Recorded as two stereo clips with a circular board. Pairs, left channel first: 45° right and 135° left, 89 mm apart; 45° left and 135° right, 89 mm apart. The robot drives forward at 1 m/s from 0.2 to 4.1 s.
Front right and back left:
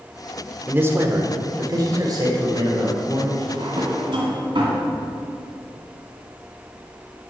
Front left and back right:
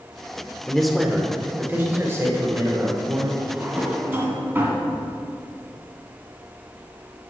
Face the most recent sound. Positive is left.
turn(degrees=160)